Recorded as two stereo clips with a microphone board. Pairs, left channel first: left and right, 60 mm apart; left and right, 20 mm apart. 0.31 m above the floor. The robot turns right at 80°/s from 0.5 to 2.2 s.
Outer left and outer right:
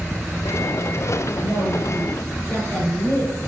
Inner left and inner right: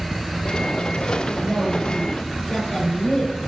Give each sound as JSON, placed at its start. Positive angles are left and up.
{"t": 1.4, "sound": "a woman speaking", "azimuth_deg": 90, "distance_m": 5.5}